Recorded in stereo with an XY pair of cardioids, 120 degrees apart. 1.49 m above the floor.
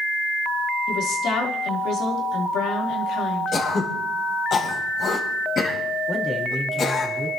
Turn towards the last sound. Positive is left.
turn(degrees=25)